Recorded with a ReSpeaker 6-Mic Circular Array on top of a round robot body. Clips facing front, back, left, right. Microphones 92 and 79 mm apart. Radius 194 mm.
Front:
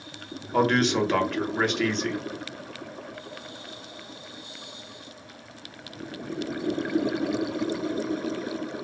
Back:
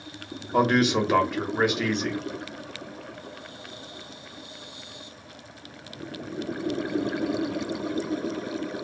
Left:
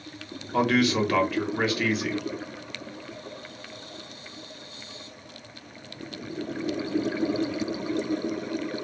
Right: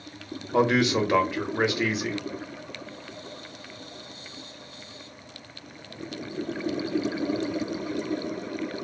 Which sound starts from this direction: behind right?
A man speaking, at 0.5 s.